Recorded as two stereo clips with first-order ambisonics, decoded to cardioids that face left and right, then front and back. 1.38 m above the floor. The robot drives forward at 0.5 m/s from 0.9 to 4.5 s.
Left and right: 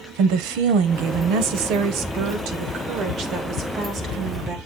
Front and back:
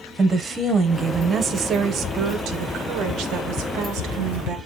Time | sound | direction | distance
0.2 | a woman speaking | 105° right | 1.2 m